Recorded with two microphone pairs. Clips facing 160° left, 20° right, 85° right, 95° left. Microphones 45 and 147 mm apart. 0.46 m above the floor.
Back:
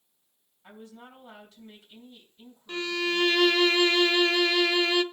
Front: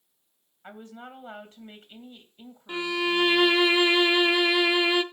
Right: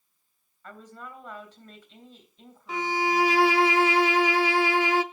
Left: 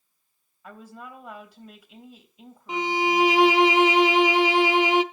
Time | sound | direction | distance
0.6 | a woman speaking | 20° left | 3 m
2.7 | a violin | 40° left | 0.6 m